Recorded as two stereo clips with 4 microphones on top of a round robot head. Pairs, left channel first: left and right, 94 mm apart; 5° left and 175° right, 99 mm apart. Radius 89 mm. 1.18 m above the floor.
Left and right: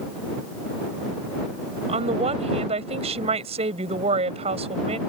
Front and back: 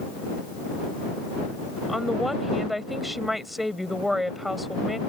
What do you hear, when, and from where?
1.9 s a woman speaking: 85° right